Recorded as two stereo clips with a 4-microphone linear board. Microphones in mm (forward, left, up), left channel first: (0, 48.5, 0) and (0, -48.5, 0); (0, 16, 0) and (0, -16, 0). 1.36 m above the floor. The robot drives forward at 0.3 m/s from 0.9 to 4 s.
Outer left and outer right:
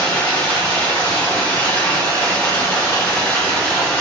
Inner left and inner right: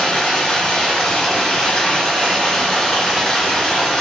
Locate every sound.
0.0 s running water: 25° left (ahead or behind), 1.9 m; by 4.0 s 15° left (ahead or behind), 2.5 m